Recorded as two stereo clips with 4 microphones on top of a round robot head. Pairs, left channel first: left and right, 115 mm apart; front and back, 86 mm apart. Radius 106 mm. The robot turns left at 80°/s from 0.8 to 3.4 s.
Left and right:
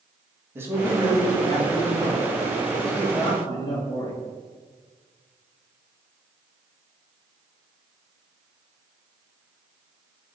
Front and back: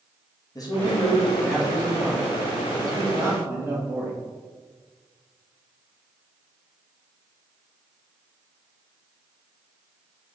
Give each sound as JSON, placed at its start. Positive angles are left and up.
{"t": 0.6, "sound": "a man speaking", "azimuth_deg": -25, "distance_m": 1.5}